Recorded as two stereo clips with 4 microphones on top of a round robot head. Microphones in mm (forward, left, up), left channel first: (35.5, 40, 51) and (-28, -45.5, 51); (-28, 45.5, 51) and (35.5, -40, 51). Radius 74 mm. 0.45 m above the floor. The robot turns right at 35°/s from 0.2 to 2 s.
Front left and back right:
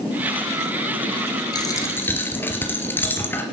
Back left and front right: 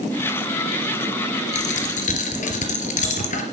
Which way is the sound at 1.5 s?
110° left.